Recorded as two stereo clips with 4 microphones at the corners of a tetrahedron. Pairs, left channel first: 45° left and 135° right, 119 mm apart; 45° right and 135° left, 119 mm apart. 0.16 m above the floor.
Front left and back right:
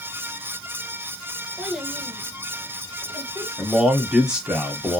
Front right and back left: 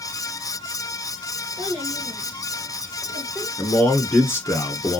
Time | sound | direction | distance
1.6 | a child speaking | 135° left | 1.2 m
3.6 | a man speaking | 65° right | 1.2 m